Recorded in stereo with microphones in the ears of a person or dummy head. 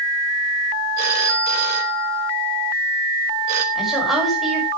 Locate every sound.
1.0 s a phone ringing: 45° right (ahead or behind), 1.3 m
3.8 s a woman speaking: centre (ahead or behind), 6 m